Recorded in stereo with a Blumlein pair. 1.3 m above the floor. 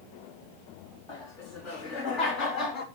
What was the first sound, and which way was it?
Laughter, 35° left.